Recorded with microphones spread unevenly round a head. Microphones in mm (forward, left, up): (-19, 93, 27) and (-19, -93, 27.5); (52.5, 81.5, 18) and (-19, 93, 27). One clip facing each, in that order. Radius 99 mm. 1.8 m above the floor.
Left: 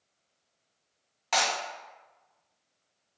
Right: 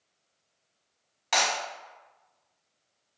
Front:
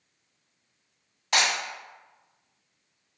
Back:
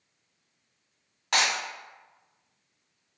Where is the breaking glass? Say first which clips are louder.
Even, front 1 dB; 170° right, 1.9 m.